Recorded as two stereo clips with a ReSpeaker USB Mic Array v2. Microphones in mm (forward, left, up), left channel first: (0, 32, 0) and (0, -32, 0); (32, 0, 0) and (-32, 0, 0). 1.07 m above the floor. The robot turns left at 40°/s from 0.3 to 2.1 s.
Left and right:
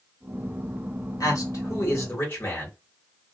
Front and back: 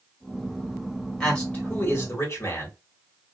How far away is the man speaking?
About 1.7 m.